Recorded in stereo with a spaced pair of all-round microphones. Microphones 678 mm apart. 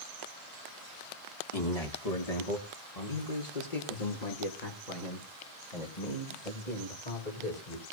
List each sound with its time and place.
1.5 s a man speaking: 55° left (ahead or behind), 2.5 m; by 7.8 s 85° left, 6 m